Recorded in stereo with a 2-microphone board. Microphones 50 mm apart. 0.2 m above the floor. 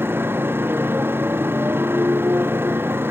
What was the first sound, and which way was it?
A motorcycle, 50° right (ahead or behind).